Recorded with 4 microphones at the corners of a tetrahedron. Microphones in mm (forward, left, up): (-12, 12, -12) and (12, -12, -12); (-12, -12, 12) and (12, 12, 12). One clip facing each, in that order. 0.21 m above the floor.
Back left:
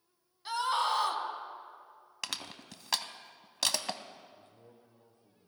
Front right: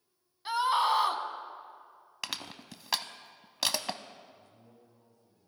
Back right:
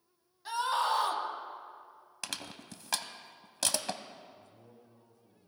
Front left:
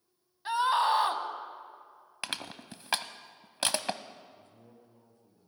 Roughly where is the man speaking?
Left.